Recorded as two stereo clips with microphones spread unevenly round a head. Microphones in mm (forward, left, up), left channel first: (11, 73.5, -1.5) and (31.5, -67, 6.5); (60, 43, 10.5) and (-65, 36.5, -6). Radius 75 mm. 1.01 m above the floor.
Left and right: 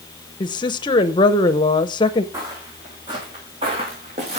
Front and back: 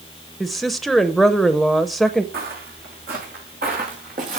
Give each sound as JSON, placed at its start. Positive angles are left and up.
{"t": 0.4, "sound": "a woman speaking", "azimuth_deg": 105, "distance_m": 0.8}
{"t": 2.3, "sound": "footsteps", "azimuth_deg": -155, "distance_m": 3.5}